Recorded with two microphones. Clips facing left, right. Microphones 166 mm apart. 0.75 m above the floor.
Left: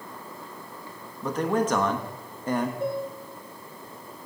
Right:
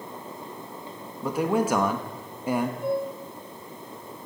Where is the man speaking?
10° right (ahead or behind), 1.1 m.